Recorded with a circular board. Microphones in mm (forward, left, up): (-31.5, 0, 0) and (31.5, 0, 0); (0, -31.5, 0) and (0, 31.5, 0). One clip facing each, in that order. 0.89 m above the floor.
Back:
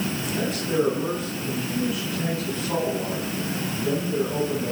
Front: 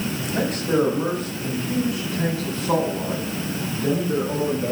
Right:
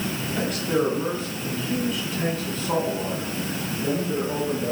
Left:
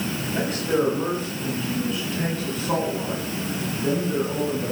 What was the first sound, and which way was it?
A man speaking, 20° left.